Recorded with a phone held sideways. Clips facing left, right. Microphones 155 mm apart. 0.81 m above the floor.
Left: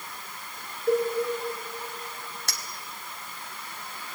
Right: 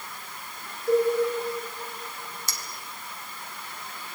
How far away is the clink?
About 1.6 m.